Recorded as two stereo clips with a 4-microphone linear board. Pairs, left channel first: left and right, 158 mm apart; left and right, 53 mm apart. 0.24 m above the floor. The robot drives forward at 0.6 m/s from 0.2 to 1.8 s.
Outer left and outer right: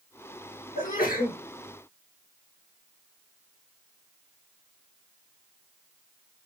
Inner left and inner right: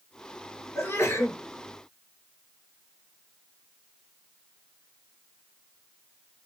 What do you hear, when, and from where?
0.8 s a sneeze: 60° left (ahead or behind), 3 m; by 1.4 s 65° left (ahead or behind), 3 m